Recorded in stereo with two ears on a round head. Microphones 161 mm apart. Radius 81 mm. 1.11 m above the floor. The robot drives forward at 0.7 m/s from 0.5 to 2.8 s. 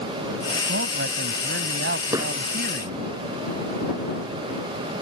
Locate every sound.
0.7 s a man speaking: 65° right (ahead or behind); by 3.1 s 55° right (ahead or behind)
2.1 s hammering: 20° right (ahead or behind)